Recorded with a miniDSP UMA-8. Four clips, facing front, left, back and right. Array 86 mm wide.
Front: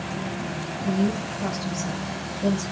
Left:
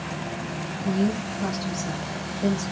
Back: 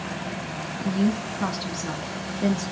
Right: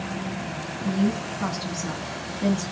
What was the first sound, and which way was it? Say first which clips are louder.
A woman speaking: even, even; 150° right.